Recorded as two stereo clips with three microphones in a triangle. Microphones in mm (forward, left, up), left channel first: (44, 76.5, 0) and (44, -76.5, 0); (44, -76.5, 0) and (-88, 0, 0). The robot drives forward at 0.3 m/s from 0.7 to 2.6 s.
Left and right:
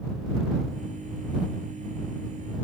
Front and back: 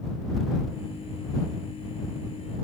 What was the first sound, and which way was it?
Only background noise.